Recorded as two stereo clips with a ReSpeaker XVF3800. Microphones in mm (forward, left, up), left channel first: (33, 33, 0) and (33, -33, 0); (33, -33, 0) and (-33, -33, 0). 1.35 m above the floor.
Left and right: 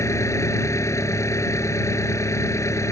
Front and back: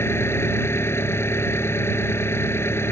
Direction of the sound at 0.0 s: 50° left.